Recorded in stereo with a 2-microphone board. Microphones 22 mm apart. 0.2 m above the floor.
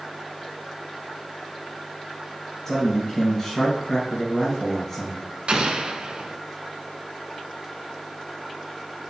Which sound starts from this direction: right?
An explosion, at 5.5 s.